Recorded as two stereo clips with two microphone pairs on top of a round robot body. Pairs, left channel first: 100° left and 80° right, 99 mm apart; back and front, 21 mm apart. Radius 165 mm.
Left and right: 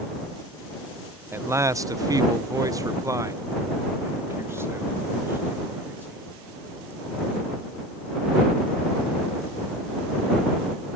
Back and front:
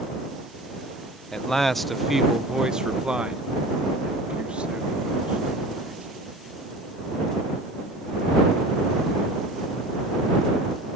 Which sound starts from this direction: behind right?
A man speaking, at 1.3 s.